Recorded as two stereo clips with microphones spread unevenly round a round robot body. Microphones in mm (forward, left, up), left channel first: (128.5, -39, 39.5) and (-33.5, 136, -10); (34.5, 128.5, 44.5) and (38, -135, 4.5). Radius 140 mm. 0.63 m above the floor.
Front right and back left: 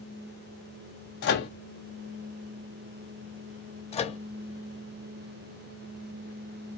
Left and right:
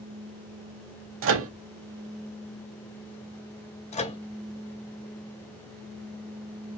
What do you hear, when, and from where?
1.2 s a microwave: 100° right, 0.5 m
3.9 s a microwave: 25° left, 0.6 m